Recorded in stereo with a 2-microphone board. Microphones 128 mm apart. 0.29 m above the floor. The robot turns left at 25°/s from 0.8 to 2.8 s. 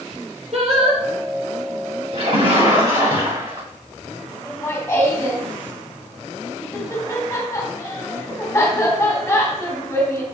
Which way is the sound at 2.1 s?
45° right (ahead or behind).